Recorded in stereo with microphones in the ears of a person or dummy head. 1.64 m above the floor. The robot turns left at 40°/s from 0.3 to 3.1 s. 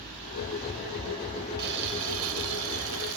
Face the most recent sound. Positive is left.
turn(degrees=-115)